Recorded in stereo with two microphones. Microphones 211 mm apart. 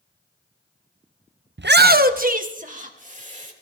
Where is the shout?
65° right (ahead or behind), 0.6 m; by 3.5 s 40° right (ahead or behind), 3 m.